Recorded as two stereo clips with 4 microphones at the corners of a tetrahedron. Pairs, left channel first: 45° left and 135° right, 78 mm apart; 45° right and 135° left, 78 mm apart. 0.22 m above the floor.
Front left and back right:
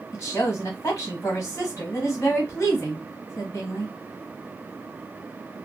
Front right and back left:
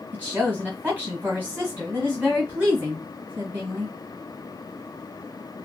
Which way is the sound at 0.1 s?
75° left.